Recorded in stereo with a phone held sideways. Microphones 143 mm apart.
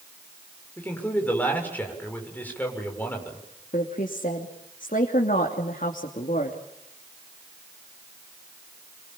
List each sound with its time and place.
0.8 s a man speaking: 15° left (ahead or behind), 7 m
3.7 s a woman speaking: 70° left (ahead or behind), 3 m